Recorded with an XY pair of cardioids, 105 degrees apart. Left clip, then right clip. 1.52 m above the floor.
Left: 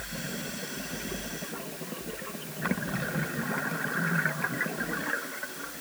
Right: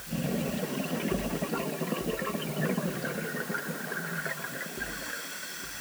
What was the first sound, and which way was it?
Only background noise.